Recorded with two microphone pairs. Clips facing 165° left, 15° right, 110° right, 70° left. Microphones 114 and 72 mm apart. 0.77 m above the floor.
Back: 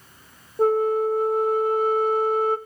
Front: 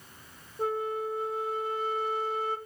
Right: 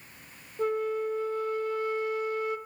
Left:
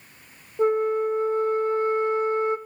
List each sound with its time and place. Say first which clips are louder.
0.6 s a flute: back 11 dB, left 7 dB; 130° left, 0.8 m